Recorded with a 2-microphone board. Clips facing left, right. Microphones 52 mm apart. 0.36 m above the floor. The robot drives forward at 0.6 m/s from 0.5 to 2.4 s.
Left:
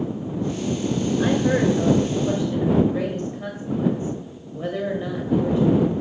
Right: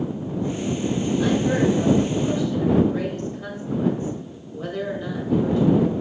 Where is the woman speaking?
35° left (ahead or behind), 1.5 m; by 6.0 s 30° left (ahead or behind), 1.8 m.